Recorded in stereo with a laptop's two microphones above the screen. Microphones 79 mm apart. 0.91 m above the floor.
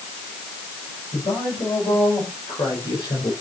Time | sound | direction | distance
1.1 | a man speaking | 80° left | 6 m